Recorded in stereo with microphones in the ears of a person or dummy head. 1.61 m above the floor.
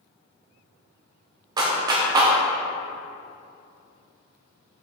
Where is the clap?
25° right (ahead or behind), 0.7 m.